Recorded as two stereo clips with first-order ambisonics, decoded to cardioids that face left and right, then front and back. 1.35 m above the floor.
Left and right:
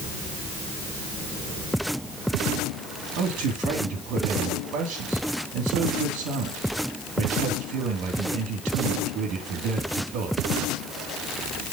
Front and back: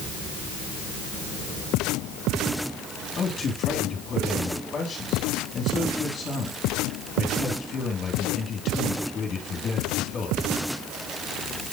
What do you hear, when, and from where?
3.2 s a man speaking: 60° right, 3 m